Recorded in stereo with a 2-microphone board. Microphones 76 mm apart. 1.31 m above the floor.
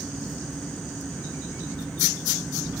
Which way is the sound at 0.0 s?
25° right (ahead or behind).